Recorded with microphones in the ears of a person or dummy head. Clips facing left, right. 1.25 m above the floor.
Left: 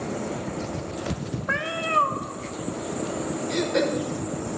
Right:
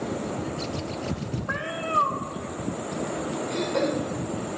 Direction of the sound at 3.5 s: 25° left (ahead or behind).